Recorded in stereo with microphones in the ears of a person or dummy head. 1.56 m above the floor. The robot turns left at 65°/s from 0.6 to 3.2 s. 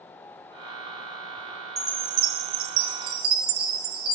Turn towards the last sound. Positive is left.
turn(degrees=-110)